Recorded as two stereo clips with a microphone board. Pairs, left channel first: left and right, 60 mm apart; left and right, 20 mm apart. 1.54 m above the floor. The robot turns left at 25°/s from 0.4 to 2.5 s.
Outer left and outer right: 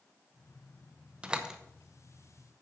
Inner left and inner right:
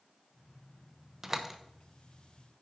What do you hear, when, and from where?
1.2 s a door slam: 20° right (ahead or behind), 0.8 m; by 1.6 s 10° right (ahead or behind), 0.8 m